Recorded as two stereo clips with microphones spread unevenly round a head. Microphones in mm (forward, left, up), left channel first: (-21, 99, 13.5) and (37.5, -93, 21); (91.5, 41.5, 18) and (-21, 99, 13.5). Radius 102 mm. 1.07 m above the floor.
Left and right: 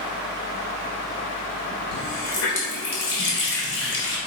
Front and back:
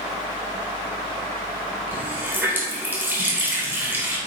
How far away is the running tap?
About 3 m.